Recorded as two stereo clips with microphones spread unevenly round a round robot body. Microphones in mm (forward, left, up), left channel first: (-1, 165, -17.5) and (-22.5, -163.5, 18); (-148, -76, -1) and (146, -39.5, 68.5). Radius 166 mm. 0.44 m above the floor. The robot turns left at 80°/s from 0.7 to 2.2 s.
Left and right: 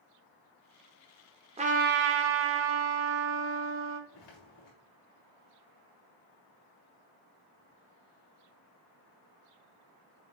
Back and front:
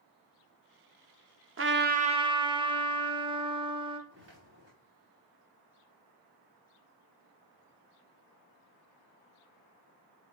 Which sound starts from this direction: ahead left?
Footsteps, at 4.1 s.